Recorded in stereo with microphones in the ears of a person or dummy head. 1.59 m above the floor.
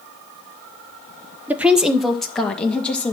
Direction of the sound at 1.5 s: 15° right (ahead or behind).